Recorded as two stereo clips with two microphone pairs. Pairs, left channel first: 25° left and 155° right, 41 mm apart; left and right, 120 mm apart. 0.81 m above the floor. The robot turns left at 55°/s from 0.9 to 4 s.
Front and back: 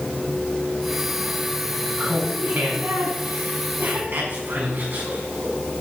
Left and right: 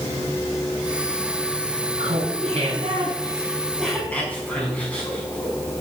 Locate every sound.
2.0 s laughter: 80° right, 6 m; by 5.5 s 170° left, 6 m